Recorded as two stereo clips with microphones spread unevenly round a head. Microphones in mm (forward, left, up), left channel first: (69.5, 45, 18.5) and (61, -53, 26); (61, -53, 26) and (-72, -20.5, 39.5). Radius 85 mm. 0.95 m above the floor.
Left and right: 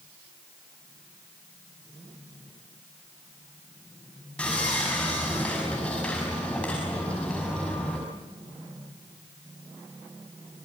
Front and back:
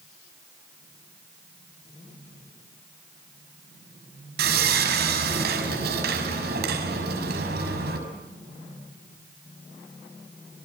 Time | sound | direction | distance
4.4 | sawing | 170° left | 6 m